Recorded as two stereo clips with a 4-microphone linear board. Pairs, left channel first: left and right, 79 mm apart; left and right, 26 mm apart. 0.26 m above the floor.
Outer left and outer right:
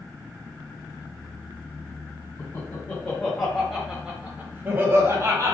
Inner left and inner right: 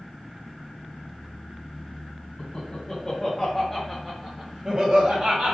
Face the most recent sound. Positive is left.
turn(degrees=-45)  # may be behind; listen again after turning